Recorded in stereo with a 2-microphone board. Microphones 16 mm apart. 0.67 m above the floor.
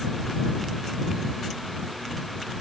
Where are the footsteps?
No footsteps in this recording.